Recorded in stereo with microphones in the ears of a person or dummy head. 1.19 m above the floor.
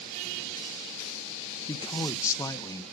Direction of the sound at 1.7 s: 15° left (ahead or behind).